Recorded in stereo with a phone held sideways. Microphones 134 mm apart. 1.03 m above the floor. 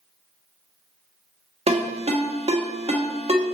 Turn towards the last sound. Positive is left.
turn(degrees=-50)  # may be behind; listen again after turning